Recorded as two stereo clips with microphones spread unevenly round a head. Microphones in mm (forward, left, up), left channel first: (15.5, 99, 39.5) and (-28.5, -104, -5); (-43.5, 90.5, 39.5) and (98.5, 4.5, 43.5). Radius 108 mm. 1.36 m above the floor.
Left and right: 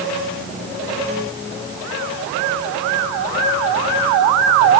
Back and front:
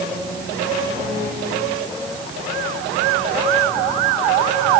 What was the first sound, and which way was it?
Only background noise.